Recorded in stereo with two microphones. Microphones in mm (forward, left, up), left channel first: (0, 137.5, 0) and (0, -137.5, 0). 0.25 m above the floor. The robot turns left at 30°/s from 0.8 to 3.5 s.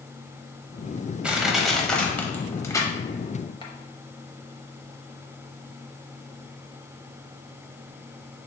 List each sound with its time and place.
1.2 s crushing: 5° right (ahead or behind), 0.7 m; by 3.7 s 15° left (ahead or behind), 0.7 m